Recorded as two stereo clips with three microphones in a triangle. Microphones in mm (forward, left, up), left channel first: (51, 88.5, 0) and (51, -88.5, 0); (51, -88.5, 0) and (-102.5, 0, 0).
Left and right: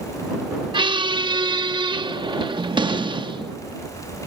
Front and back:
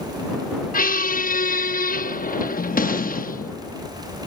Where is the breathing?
No breathing in this recording.